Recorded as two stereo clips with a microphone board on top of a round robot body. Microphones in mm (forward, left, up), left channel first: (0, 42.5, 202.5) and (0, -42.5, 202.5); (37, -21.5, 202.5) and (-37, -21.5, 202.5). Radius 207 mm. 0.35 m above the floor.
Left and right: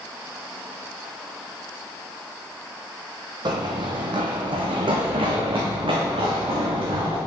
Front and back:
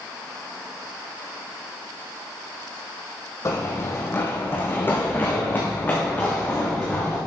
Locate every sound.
3.5 s running footsteps: 50° right, 1.1 m; by 7.2 s 70° right, 3 m